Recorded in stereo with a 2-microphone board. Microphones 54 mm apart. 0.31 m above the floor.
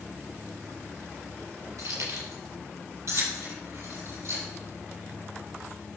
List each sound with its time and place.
1.8 s keys jangling: 75° right (ahead or behind), 5 m; by 4.4 s 55° right (ahead or behind), 6.5 m